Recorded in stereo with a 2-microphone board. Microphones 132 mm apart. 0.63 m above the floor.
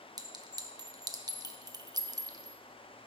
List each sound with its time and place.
0.2 s a clink: 30° right (ahead or behind), 0.7 m